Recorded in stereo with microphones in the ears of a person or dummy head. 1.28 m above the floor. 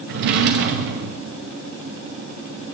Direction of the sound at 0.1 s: 55° right (ahead or behind).